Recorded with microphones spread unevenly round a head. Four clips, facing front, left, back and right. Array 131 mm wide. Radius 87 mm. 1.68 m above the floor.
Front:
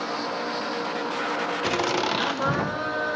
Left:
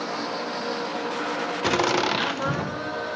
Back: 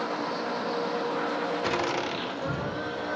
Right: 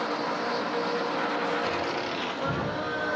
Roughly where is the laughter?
Left.